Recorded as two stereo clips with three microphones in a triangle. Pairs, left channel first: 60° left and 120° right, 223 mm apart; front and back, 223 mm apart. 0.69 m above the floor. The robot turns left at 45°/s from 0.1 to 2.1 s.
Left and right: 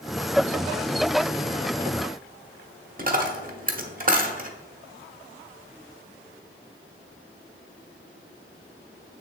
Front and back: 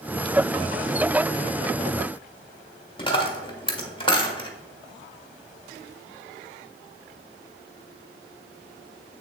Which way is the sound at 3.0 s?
65° right.